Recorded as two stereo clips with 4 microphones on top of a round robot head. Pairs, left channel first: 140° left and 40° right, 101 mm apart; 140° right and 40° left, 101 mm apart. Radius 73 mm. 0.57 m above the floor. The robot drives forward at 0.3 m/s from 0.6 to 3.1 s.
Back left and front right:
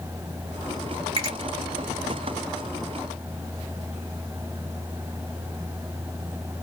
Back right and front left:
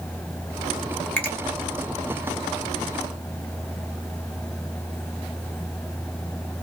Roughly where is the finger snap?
Right.